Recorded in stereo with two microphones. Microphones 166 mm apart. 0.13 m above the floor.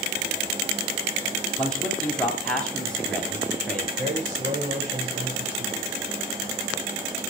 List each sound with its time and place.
1.6 s a man speaking: 5° left (ahead or behind), 3 m
4.0 s a man speaking: 55° right (ahead or behind), 6 m